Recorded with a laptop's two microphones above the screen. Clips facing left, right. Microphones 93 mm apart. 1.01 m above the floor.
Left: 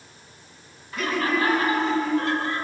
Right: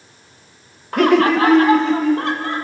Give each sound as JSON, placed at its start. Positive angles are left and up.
{"t": 0.9, "sound": "laughter", "side_deg": -60, "distance_m": 0.7}